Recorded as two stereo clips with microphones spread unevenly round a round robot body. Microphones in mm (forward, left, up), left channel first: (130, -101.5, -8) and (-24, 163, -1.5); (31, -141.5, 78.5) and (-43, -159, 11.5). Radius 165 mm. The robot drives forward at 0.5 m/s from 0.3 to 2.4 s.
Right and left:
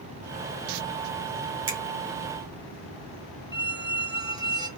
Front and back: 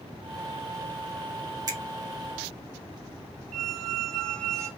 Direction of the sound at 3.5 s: 60° left.